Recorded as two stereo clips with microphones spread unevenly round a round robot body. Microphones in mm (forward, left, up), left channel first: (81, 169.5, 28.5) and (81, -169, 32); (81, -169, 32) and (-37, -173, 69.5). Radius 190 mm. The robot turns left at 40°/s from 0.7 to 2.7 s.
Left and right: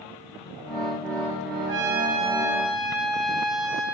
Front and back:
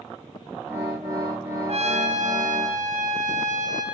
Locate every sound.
1.7 s a trumpet: 140° right, 0.9 m; by 3.8 s straight behind, 0.9 m